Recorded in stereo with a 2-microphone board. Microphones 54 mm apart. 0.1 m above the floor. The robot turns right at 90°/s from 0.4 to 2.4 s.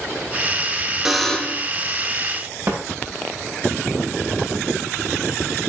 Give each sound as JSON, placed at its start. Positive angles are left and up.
{"t": 1.1, "sound": "a buzzer", "azimuth_deg": -10, "distance_m": 1.2}
{"t": 2.7, "sound": "a snare drum", "side_deg": -55, "distance_m": 6.0}